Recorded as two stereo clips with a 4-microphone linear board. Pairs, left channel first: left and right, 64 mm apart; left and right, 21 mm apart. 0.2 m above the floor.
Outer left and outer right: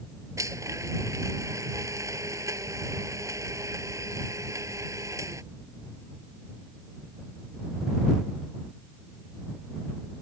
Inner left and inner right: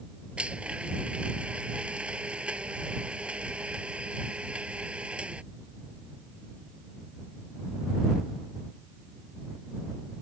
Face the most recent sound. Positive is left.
turn(degrees=-55)  # may be behind; listen again after turning